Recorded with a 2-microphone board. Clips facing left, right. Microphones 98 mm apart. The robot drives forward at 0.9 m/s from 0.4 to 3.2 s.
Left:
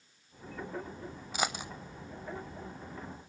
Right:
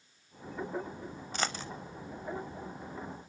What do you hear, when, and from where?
1.3 s a dropped coin: 10° left (ahead or behind), 0.7 m; by 1.7 s 15° left (ahead or behind), 0.5 m